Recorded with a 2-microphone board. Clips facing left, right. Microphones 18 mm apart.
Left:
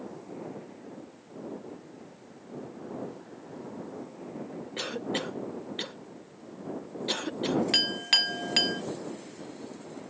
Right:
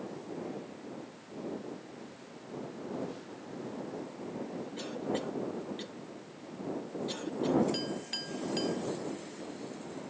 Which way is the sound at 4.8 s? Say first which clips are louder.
Left 4 dB; 40° left (ahead or behind).